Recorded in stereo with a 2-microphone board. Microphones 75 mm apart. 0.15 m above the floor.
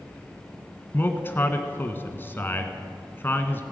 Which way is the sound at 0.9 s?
30° left (ahead or behind).